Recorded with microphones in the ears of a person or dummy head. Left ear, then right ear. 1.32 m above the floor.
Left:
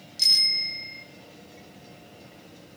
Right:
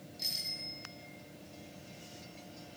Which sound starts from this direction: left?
A bicycle bell, at 0.2 s.